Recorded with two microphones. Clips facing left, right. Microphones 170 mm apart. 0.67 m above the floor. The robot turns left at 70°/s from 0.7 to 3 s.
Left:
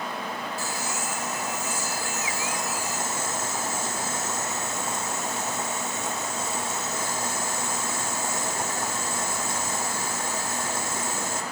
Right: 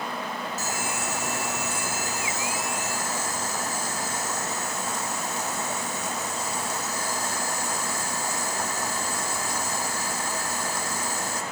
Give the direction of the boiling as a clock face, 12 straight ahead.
1 o'clock.